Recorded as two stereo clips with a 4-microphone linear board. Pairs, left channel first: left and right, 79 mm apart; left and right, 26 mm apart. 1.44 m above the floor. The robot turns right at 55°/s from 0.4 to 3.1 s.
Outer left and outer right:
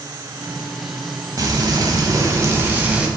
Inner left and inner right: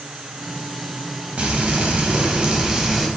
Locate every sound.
1.4 s frying: 105° right, 0.8 m; by 3.1 s 10° right, 0.8 m